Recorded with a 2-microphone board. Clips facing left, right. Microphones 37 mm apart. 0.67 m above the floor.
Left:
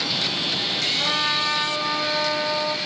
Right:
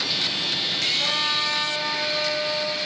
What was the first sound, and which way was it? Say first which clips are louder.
A trumpet: left 1 dB; 15° left (ahead or behind).